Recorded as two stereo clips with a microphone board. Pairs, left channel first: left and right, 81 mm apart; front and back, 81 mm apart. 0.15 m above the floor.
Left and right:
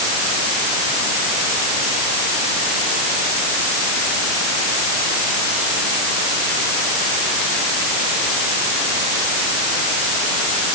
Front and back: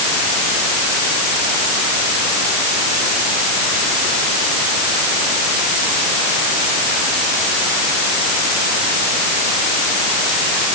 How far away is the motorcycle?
I don't hear a motorcycle.